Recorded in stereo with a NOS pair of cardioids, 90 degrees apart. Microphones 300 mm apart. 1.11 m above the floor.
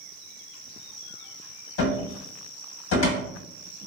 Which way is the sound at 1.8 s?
50° left.